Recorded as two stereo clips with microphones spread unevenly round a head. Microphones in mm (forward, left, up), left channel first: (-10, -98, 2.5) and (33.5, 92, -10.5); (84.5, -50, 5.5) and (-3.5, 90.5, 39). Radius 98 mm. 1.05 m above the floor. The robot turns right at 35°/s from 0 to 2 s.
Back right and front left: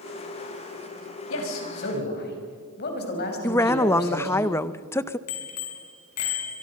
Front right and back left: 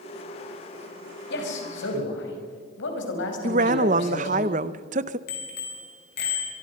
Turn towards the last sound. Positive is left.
turn(degrees=-95)